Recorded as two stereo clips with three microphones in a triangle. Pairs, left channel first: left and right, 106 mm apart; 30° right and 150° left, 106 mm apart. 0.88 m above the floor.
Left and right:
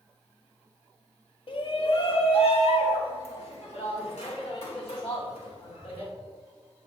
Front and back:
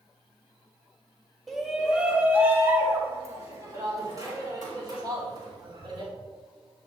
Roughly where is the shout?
Ahead left.